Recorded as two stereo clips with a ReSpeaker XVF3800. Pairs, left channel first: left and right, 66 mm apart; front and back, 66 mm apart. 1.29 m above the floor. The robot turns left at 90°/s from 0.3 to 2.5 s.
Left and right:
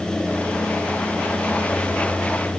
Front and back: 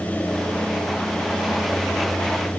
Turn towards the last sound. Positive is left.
No sound to turn to.